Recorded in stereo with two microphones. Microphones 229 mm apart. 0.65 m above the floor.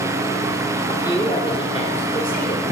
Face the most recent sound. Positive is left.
turn(degrees=45)  # may be behind; listen again after turning